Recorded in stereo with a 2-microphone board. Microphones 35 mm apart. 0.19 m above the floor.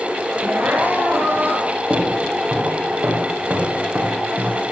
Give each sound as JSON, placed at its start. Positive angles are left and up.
{"t": 0.4, "sound": "crying", "side_deg": -65, "distance_m": 3.5}
{"t": 1.9, "sound": "footsteps", "side_deg": -70, "distance_m": 5.5}